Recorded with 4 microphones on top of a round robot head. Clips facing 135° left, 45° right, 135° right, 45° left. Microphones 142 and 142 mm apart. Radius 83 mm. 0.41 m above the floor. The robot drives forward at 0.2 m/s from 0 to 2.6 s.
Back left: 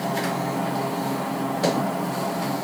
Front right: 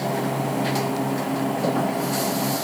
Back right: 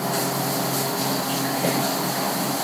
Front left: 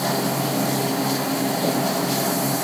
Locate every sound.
Only background noise.